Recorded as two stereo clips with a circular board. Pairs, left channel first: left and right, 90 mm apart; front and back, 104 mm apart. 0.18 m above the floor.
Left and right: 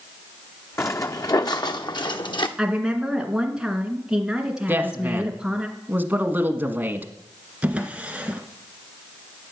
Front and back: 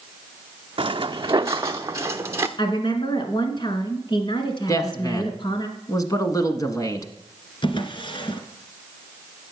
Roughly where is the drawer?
Ahead.